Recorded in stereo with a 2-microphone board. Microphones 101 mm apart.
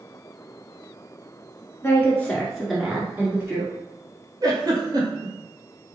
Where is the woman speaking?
25° left (ahead or behind), 1.8 m; by 3.7 s 30° right (ahead or behind), 1.7 m.